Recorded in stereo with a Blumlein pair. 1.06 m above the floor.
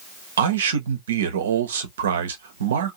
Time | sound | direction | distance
0.4 | a man speaking | 65° right | 0.8 m